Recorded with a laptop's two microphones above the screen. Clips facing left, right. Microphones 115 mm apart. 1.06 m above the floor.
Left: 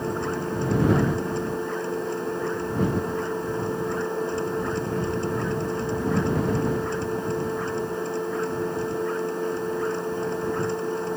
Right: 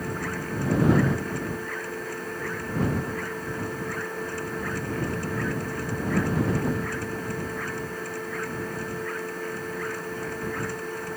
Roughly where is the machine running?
Left.